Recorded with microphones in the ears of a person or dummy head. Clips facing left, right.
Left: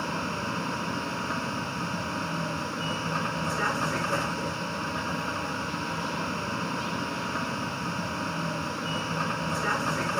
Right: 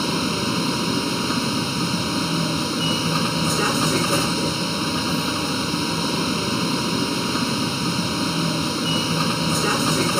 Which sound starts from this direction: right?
A vehicle, at 0.0 s.